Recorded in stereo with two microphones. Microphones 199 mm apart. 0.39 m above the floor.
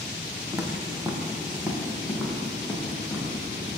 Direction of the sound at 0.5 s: 15° right (ahead or behind).